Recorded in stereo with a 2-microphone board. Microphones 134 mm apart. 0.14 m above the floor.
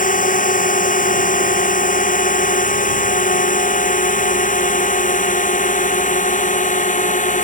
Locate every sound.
0.0 s a drone: 80° left; by 7.5 s 70° left (ahead or behind)